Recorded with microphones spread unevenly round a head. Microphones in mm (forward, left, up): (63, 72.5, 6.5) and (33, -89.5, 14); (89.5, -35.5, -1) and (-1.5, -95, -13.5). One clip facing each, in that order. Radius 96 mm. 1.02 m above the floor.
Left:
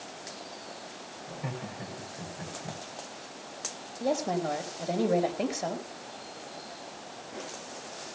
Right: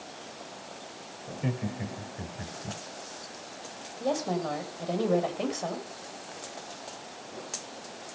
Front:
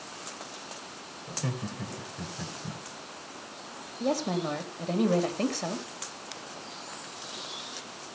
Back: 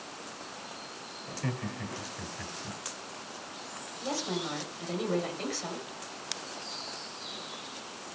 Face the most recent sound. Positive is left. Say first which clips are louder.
# left 1 dB, front 6 dB
turn(degrees=0)